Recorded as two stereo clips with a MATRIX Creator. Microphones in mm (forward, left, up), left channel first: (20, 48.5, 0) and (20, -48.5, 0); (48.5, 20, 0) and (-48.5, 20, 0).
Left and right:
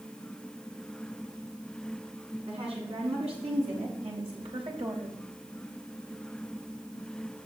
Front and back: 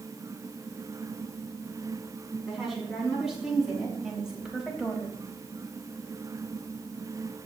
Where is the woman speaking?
95° right, 5.5 m; by 5.2 s 100° right, 3 m.